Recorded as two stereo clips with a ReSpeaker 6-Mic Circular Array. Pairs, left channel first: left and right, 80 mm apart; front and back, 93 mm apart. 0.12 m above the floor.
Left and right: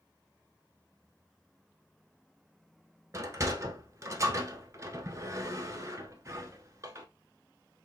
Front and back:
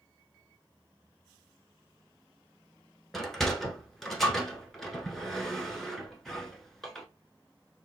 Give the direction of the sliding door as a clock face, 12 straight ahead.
3 o'clock.